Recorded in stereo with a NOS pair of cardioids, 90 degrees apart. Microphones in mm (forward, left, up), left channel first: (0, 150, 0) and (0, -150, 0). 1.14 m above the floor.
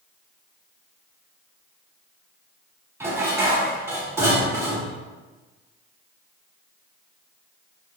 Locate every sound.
3.0 s dishes clattering: 10° right, 1.4 m